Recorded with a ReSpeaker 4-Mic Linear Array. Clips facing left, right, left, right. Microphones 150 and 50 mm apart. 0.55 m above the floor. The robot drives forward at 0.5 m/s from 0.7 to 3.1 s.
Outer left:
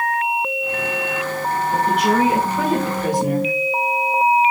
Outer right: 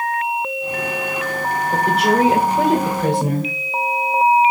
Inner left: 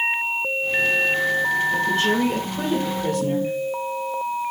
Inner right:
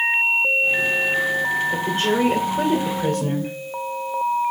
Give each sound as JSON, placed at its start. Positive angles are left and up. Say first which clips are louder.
{"t": 1.7, "sound": "a woman speaking", "louder": "outer right 1 dB, inner left 1 dB", "side_deg": -40, "distance_m": 2.0}